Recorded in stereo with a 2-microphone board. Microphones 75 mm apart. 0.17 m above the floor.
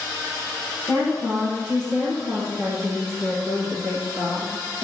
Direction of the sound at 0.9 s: 45° right (ahead or behind).